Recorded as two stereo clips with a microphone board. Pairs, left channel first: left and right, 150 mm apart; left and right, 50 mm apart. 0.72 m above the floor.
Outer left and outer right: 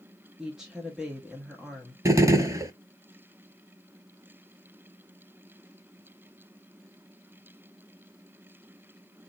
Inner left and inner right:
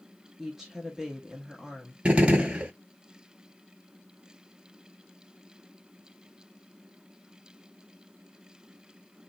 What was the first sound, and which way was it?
A woman speaking, 5° right (ahead or behind).